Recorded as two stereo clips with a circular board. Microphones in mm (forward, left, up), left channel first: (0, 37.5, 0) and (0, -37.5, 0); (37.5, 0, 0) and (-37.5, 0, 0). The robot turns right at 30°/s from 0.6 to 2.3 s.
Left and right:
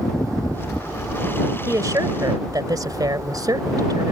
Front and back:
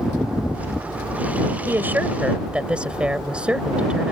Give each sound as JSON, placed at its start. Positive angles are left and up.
{"t": 1.7, "sound": "a woman speaking", "azimuth_deg": -125}